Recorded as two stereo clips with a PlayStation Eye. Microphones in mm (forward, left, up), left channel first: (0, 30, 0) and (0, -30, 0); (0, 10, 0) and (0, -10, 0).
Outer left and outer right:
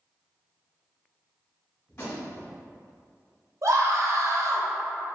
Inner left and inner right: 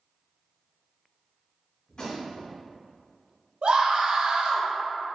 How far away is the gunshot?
About 2.0 m.